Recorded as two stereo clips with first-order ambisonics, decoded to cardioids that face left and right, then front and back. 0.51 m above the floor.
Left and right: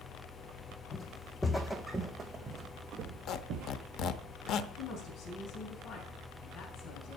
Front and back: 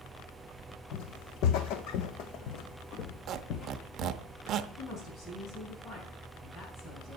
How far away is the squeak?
About 0.6 m.